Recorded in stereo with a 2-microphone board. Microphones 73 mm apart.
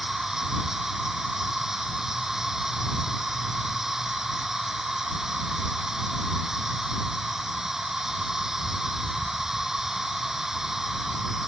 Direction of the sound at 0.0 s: 5° right (ahead or behind).